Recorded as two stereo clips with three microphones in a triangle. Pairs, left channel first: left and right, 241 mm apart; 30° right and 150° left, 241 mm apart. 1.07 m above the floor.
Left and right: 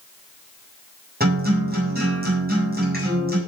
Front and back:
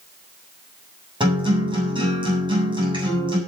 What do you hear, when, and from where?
1.2 s a guitar: 140° right, 7.5 m